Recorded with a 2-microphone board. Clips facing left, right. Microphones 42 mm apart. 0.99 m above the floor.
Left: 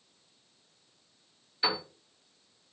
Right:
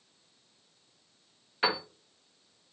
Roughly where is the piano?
Right.